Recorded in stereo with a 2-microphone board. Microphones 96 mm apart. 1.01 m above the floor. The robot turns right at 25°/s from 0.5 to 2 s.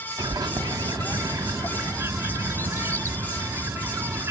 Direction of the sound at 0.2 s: 85° right.